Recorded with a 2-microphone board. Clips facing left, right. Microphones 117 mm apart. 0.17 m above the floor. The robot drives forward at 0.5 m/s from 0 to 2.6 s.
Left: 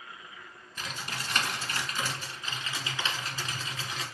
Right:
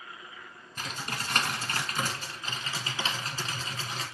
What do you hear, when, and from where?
0.8 s typing on a keyboard: 45° right (ahead or behind), 0.9 m; by 4.0 s 40° right (ahead or behind), 0.9 m